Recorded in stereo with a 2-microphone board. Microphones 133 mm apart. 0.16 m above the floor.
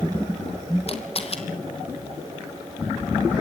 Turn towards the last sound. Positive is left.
turn(degrees=45)  # may be behind; listen again after turning